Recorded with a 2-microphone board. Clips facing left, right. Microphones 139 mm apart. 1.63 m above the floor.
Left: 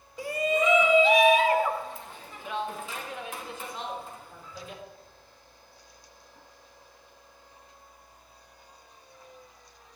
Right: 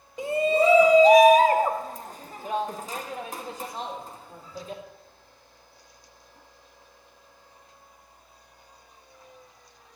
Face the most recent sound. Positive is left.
turn(degrees=-35)  # may be behind; listen again after turning